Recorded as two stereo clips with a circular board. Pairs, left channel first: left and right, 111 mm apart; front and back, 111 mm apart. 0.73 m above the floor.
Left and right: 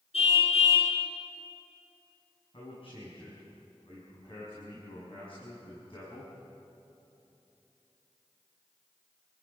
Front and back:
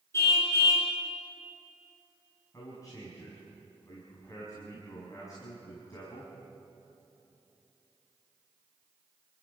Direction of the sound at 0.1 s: 65° left.